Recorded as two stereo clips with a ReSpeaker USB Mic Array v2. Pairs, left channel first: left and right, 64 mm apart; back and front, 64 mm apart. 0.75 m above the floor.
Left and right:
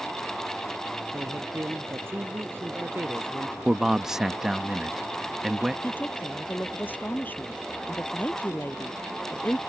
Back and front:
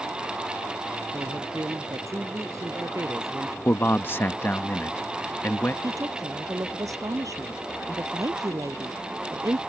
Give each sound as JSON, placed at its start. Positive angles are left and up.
{"t": 1.1, "sound": "a man speaking", "azimuth_deg": -35}
{"t": 3.6, "sound": "a man speaking", "azimuth_deg": -165}
{"t": 5.8, "sound": "a woman speaking", "azimuth_deg": 30}